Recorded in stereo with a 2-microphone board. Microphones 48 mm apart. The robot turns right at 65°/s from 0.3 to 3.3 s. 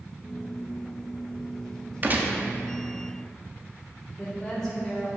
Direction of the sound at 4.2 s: 10° left (ahead or behind).